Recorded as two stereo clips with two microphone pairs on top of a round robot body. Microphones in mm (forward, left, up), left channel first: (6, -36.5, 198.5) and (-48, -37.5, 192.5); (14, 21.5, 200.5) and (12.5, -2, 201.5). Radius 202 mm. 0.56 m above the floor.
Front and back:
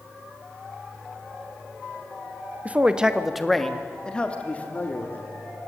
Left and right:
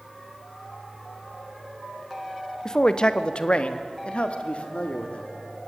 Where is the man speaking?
135° left, 1.4 m; by 5.3 s 60° left, 2.5 m.